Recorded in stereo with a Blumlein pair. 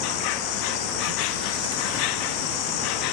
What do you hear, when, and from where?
0.0 s an insect: 40° left